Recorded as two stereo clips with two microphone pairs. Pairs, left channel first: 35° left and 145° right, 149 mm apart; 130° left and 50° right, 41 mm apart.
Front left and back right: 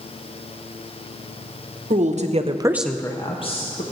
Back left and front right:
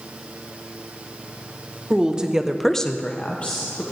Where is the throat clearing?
No throat clearing in this recording.